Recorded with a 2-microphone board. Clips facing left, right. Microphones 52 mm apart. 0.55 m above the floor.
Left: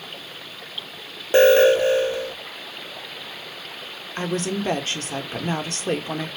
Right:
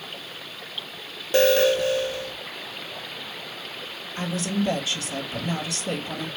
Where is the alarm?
30° left (ahead or behind), 0.7 m.